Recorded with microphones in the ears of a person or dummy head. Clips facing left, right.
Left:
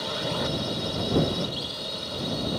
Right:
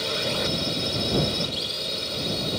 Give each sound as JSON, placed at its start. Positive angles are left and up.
{"t": 0.0, "sound": "a drone", "side_deg": -35}